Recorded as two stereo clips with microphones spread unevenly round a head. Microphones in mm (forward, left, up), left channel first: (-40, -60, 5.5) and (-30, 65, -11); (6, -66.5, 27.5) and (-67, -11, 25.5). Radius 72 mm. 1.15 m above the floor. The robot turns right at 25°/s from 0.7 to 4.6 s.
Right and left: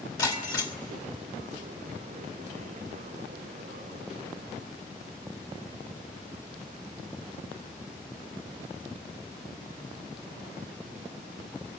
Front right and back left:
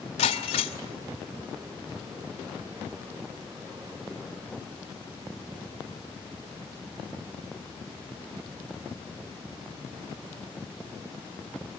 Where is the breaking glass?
30° right, 2 m; by 0.8 s 25° right, 2 m.